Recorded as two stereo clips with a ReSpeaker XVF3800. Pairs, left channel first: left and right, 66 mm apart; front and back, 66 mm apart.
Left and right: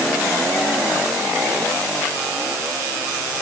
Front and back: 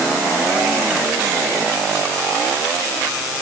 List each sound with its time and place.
Only background noise.